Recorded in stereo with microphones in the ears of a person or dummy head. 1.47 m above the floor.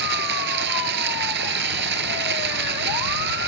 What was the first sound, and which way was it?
Running water, 65° right (ahead or behind).